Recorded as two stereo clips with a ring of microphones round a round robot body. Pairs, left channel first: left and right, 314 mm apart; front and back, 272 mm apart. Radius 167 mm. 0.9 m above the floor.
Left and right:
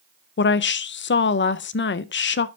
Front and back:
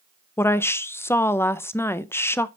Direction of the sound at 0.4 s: 75° left.